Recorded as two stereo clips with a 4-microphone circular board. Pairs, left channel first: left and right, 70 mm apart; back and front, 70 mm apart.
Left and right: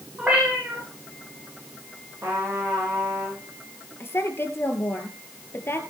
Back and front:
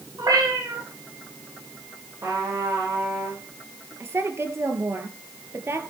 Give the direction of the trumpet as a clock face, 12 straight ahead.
1 o'clock.